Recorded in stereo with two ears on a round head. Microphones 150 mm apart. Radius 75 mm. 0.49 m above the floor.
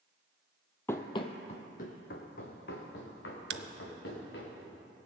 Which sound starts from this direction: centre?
Running footsteps, at 0.9 s.